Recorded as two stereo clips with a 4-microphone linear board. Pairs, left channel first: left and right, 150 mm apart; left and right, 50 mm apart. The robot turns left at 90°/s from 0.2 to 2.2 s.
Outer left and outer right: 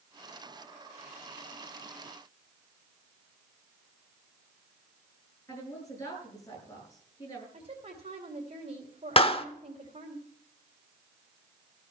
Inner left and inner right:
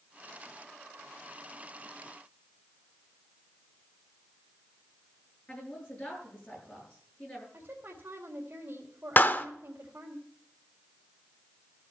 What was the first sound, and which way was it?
A woman speaking, 20° left (ahead or behind).